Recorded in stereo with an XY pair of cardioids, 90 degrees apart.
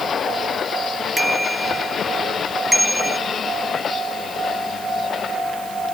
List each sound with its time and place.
1.2 s a bicycle bell: 10° right